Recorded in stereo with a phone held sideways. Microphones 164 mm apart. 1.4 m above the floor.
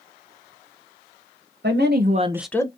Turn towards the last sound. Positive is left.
turn(degrees=20)  # may be behind; listen again after turning